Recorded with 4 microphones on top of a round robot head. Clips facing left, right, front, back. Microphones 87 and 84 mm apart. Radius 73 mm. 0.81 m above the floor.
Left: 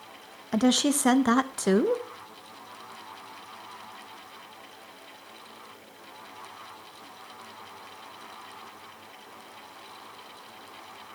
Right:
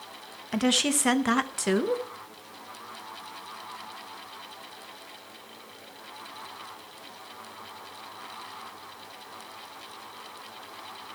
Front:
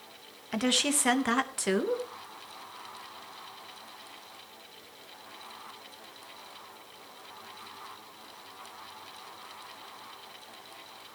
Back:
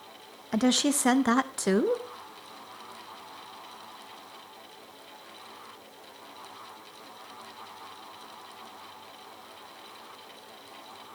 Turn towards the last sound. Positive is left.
turn(degrees=135)